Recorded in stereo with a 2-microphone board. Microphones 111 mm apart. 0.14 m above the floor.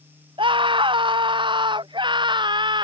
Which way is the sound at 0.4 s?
45° right (ahead or behind).